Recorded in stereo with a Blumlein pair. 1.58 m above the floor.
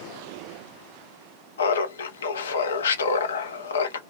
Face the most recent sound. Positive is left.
turn(degrees=65)